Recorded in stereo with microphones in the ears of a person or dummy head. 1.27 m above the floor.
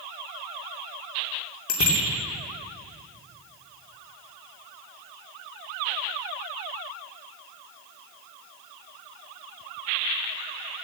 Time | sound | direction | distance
1.7 | a bicycle bell | 75° left (ahead or behind) | 2.5 m